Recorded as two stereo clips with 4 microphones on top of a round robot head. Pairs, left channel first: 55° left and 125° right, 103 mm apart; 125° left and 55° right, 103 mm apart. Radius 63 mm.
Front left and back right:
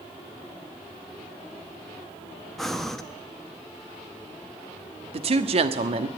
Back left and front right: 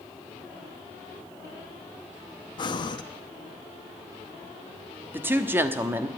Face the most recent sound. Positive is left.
turn(degrees=-125)